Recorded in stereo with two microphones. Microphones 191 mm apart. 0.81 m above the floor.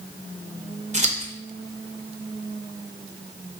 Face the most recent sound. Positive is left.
turn(degrees=-35)  # may be behind; listen again after turning